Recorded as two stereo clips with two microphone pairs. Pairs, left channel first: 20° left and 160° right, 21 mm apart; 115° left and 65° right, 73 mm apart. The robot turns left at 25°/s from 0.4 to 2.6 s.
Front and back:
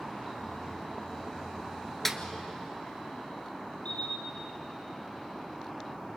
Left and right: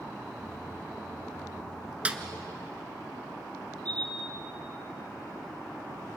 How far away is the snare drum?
About 1.3 m.